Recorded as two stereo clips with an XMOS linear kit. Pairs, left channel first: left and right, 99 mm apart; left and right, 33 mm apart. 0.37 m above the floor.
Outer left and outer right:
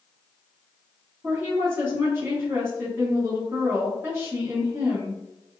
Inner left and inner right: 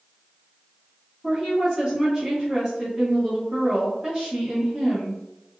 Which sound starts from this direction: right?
A woman speaking, at 1.2 s.